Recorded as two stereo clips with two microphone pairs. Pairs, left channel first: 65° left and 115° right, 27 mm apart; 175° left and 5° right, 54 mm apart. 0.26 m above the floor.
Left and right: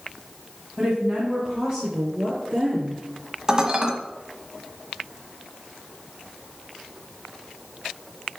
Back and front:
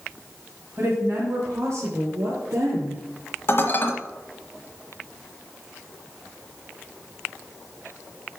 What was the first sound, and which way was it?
A woman speaking, 25° right.